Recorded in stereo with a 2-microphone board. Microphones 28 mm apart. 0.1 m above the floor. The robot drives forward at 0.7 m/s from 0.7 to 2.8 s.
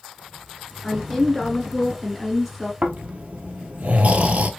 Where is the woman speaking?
Centre (ahead or behind), 1.5 m.